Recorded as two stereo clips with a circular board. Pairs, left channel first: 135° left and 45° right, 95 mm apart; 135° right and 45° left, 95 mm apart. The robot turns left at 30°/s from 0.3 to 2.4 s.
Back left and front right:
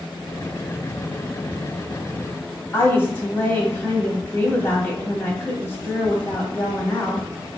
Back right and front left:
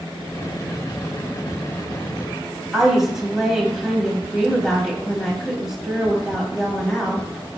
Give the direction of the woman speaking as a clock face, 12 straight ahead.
8 o'clock.